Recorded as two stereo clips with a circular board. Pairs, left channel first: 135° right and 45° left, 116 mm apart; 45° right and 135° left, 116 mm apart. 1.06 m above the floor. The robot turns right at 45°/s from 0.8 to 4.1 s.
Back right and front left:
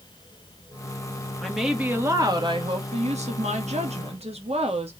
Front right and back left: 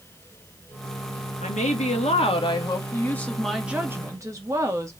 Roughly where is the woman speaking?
Ahead right.